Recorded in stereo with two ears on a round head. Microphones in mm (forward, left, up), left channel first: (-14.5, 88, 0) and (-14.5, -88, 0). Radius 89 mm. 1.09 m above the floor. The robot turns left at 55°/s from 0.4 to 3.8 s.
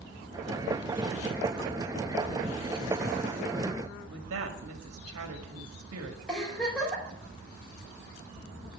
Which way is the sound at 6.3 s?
5° left (ahead or behind).